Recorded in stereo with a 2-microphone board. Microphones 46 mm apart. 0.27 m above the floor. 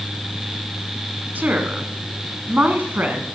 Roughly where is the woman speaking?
Right.